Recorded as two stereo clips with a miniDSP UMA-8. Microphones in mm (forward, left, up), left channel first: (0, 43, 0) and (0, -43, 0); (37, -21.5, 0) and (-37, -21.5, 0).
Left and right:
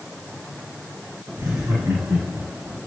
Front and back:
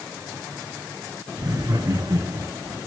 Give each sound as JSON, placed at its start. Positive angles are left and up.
{"t": 1.4, "sound": "laughter", "azimuth_deg": -150, "distance_m": 8.0}